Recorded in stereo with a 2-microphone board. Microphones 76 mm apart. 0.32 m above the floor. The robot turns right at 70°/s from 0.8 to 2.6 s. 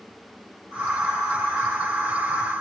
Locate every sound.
Only background noise.